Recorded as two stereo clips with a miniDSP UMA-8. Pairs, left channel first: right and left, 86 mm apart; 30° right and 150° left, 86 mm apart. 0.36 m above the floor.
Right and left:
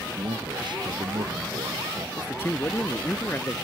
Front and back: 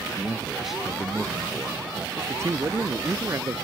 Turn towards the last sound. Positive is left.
turn(degrees=-155)